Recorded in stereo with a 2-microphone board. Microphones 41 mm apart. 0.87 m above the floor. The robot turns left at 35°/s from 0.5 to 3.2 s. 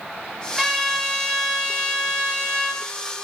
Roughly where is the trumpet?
Ahead.